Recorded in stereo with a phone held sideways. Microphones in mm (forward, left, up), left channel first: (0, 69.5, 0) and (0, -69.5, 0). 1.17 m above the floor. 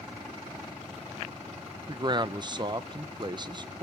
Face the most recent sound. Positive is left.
turn(degrees=-35)  # may be behind; listen again after turning